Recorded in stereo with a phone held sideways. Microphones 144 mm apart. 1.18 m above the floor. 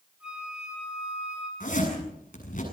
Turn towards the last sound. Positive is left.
turn(degrees=65)  # may be behind; listen again after turning